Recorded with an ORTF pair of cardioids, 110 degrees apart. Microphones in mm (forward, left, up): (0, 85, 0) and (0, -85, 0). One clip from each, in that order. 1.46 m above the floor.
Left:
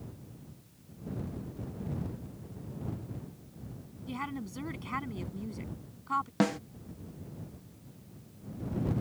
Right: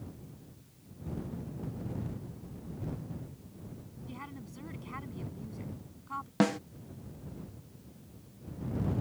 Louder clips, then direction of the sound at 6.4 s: Right 4 dB; 5° right.